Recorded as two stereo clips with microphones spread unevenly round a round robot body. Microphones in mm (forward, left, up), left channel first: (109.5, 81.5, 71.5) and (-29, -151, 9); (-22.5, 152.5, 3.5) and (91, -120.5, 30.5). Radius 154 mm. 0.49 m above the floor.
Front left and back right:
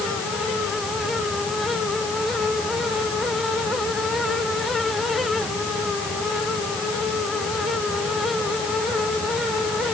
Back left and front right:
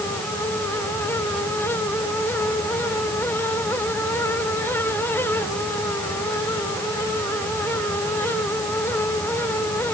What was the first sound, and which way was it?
Only background noise.